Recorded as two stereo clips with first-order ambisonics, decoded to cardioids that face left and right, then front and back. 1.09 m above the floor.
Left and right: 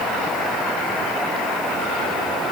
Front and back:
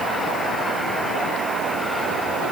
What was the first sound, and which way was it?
Only background noise.